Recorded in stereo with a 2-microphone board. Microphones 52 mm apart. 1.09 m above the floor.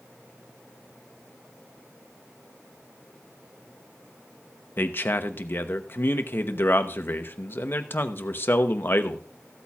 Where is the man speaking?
45° left (ahead or behind), 0.9 m.